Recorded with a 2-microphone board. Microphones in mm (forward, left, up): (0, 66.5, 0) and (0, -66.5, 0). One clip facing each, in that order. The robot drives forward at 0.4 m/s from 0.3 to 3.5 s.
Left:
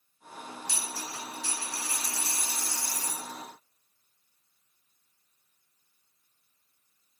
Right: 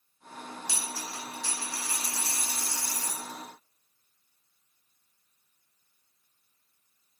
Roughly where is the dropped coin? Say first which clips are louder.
Even; right.